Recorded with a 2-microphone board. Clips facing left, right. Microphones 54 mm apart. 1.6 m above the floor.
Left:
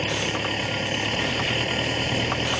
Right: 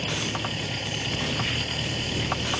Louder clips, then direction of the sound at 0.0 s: Left 4 dB; 35° left (ahead or behind).